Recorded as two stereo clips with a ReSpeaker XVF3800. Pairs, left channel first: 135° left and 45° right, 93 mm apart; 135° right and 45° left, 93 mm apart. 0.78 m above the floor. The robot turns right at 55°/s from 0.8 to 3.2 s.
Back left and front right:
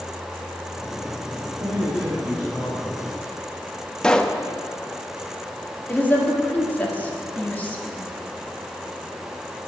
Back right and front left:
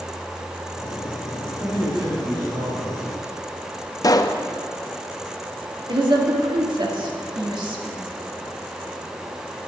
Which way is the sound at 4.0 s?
150° right.